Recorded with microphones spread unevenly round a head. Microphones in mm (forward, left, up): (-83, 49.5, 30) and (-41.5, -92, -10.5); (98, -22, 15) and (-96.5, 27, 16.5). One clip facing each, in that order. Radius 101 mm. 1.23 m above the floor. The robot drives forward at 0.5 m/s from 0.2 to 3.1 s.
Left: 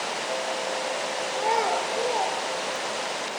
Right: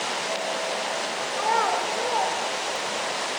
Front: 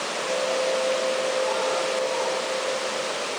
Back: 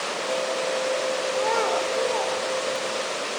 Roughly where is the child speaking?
Behind.